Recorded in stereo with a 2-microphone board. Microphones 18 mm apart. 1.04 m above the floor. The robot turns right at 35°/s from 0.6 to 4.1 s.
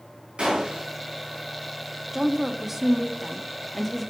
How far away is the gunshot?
About 3 m.